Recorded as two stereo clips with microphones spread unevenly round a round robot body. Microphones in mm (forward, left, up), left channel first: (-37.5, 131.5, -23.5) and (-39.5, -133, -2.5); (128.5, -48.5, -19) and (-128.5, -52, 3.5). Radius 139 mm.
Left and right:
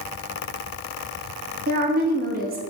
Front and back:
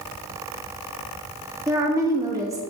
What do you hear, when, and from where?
1.7 s a woman speaking: 105° right, 0.9 m